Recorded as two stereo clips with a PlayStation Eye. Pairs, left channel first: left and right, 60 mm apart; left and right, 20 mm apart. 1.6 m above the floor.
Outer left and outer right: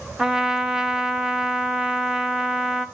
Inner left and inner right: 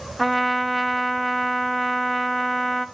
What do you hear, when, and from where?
0.2 s a trumpet: 10° right (ahead or behind), 1.1 m